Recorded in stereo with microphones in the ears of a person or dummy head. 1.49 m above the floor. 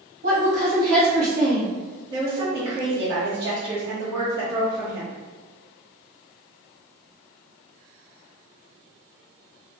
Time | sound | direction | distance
0.2 | a woman speaking | 75° right (ahead or behind) | 1.2 m
2.1 | a woman speaking | 35° right (ahead or behind) | 0.8 m